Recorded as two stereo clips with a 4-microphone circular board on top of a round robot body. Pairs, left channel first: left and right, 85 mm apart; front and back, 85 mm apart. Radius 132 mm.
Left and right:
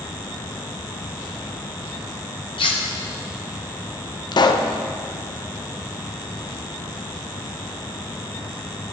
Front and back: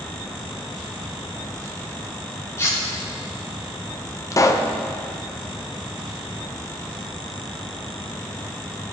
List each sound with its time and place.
2.6 s cutlery clinking: 60° left, 1.5 m
4.3 s a pop: 55° left, 0.8 m